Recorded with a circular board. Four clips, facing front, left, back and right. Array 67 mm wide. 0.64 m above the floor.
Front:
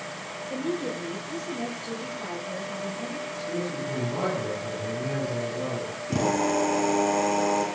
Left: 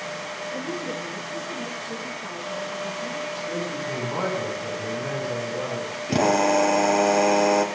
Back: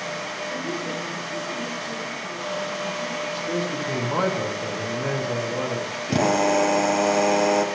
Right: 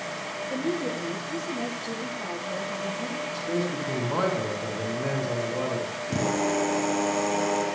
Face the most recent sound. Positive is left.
turn(degrees=125)